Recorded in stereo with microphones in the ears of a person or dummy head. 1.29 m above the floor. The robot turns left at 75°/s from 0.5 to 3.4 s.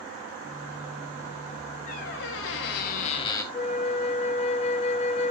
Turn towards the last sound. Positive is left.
turn(degrees=35)  # may be behind; listen again after turning